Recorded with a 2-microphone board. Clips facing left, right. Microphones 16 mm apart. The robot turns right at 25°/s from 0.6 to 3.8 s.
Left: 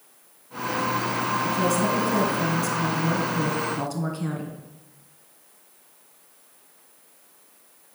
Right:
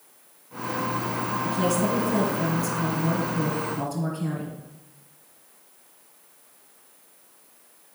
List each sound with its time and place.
1.4 s a woman speaking: 5° left, 2 m; by 4.6 s 65° left, 2 m